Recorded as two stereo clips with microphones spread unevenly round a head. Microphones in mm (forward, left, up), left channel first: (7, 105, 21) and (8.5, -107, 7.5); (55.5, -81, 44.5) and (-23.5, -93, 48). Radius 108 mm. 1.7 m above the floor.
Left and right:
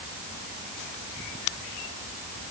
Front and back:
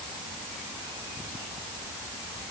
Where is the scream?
I don't hear a scream.